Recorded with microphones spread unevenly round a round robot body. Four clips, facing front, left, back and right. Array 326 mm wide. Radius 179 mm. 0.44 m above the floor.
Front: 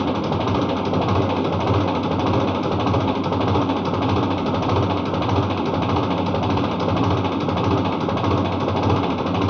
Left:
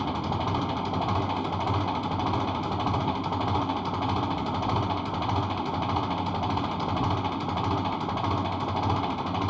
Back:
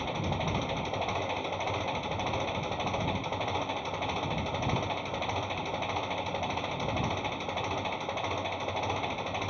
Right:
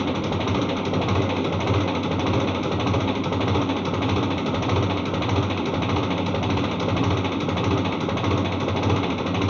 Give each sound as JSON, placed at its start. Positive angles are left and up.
{"t": 0.0, "sound": "an engine running", "azimuth_deg": -15}